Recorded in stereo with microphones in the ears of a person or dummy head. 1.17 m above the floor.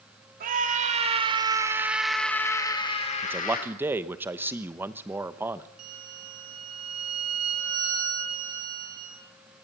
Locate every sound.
0.4 s a scream: 45° right (ahead or behind), 3.5 m; by 3.7 s 45° left (ahead or behind), 3 m
3.2 s a man speaking: 15° right (ahead or behind), 1.0 m
5.8 s a violin: 85° right, 5.5 m